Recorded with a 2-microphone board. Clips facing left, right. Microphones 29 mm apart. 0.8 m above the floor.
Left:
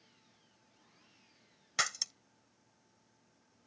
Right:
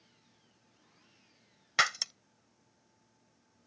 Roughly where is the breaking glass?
Right.